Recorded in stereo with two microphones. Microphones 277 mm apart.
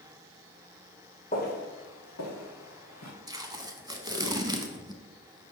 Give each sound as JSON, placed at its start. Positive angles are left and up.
{"t": 1.3, "sound": "footsteps", "side_deg": 35, "distance_m": 1.8}
{"t": 3.3, "sound": "tape being pulled", "side_deg": -15, "distance_m": 0.6}